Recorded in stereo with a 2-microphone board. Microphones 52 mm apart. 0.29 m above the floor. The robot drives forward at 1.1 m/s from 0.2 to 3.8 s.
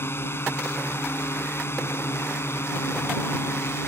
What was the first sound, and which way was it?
A drone, 55° left (ahead or behind).